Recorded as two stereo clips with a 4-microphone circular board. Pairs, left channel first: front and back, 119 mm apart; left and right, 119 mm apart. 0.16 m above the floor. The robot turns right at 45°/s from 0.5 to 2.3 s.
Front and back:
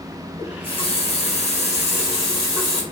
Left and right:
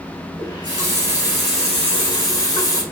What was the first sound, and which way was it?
A running tap, 40° right.